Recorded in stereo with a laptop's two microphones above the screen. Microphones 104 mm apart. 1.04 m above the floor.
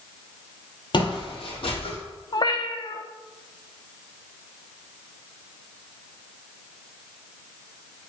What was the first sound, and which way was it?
Footsteps, 50° left (ahead or behind).